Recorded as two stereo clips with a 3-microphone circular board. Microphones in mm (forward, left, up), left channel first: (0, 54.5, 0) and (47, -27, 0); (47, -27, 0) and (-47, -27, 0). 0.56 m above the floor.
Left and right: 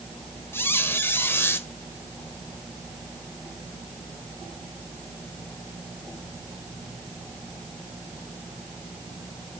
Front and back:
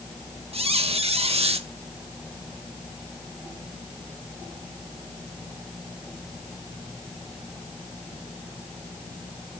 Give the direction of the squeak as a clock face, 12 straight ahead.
6 o'clock.